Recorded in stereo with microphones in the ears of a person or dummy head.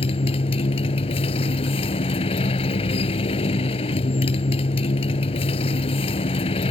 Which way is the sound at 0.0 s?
35° left (ahead or behind).